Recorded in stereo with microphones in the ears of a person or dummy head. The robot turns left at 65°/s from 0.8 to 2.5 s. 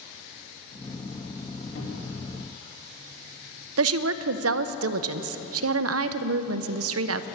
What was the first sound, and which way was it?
A cupboard door, 75° left.